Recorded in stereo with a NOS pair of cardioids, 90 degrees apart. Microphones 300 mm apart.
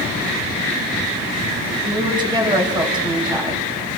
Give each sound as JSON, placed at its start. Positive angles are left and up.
{"t": 1.9, "sound": "a woman speaking", "azimuth_deg": -15, "distance_m": 6.5}